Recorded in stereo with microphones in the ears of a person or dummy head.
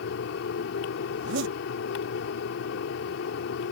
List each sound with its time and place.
0.0 s a fan: 70° left (ahead or behind)
1.1 s a zipper: 70° right (ahead or behind)